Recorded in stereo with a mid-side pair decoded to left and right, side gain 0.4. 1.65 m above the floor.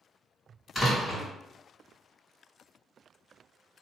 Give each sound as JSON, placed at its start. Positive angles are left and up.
{"t": 0.8, "sound": "a door slam", "azimuth_deg": 15, "distance_m": 1.9}